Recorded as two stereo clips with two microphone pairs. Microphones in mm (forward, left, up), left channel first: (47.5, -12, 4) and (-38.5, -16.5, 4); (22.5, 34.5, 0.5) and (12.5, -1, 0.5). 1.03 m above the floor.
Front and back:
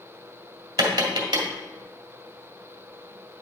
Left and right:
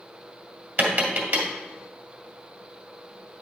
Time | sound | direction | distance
0.8 | tapping | 145° right | 1.9 m